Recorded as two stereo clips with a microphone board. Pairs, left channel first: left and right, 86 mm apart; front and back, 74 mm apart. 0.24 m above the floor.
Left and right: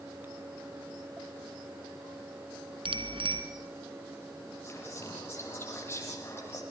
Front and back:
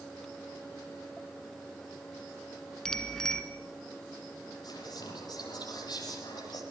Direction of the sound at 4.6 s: 30° left.